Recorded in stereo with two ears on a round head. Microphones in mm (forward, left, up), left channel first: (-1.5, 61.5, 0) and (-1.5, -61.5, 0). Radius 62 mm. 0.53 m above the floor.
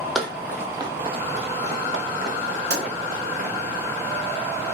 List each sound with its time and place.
0.1 s running footsteps: centre (ahead or behind), 0.8 m; by 3.6 s 70° right (ahead or behind), 1.9 m
2.7 s a pop: 85° right, 2.5 m